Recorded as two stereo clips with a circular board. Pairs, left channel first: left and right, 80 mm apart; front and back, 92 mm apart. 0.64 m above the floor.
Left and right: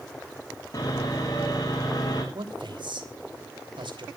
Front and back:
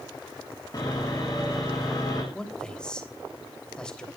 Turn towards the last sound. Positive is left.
turn(degrees=-80)